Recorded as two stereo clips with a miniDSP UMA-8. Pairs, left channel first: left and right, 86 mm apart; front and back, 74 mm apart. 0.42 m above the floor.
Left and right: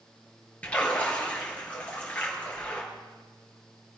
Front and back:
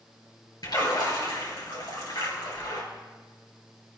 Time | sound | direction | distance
0.6 | a splash | 15° left | 4 m